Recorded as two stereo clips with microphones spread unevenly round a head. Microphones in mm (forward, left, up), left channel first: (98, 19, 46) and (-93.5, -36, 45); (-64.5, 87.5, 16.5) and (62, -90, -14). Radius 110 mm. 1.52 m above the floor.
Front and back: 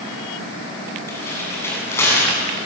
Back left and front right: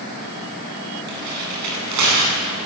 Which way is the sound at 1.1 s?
60° right.